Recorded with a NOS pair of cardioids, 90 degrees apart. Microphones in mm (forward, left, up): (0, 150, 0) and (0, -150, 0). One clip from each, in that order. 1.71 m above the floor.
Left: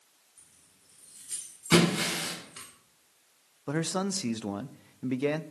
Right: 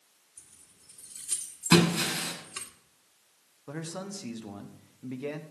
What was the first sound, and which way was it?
Keys jangling, 50° right.